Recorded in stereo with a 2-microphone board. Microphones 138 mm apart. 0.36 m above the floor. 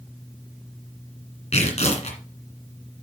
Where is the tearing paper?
55° left (ahead or behind), 1.9 m.